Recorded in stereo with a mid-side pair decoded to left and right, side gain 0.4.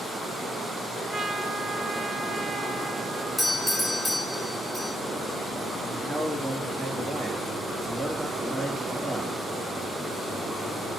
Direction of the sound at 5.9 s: 15° right.